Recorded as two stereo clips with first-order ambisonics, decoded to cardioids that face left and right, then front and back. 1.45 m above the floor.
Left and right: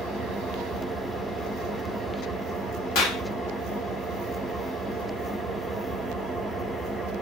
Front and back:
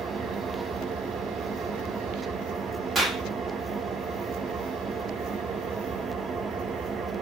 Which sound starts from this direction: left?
A clap, at 3.0 s.